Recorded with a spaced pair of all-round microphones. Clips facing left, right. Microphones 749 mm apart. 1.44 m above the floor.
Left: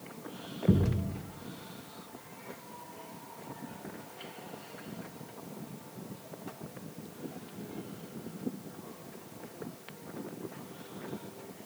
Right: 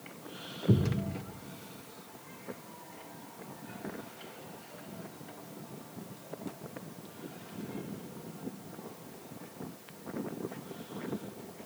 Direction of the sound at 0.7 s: 50° left (ahead or behind).